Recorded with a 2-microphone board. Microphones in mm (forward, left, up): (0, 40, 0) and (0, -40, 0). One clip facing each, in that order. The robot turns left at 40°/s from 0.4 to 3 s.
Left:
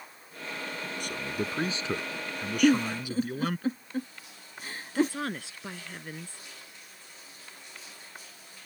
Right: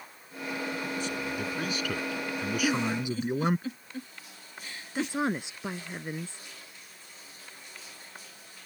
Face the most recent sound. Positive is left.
turn(degrees=-20)  # may be behind; listen again after turning